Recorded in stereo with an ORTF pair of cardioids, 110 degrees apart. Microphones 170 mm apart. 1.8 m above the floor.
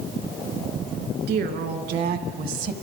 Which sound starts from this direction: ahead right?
A woman speaking, at 1.3 s.